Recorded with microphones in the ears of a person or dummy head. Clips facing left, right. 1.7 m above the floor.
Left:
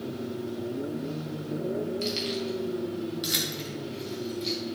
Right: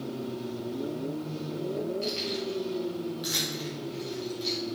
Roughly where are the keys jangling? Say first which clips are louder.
Left 2 dB; left.